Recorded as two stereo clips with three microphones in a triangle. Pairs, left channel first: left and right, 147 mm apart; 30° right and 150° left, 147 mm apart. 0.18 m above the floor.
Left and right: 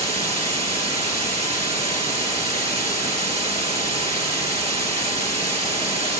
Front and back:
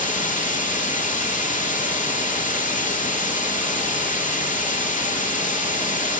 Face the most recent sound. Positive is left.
turn(degrees=-50)